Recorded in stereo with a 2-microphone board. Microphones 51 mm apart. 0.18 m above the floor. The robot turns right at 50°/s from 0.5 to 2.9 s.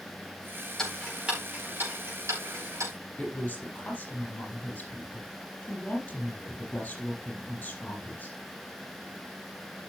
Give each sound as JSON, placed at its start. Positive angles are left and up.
{"t": 0.8, "sound": "ticking", "side_deg": 10, "distance_m": 4.5}
{"t": 3.2, "sound": "a woman speaking", "side_deg": 30, "distance_m": 5.5}